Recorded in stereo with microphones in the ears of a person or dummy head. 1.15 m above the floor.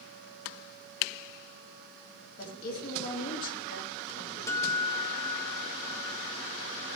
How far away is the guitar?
About 1.2 m.